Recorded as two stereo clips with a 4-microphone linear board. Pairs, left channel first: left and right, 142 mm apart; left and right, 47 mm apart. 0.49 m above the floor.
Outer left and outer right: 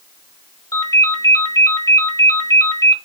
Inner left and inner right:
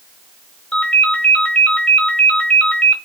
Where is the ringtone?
25° left (ahead or behind), 1.2 m.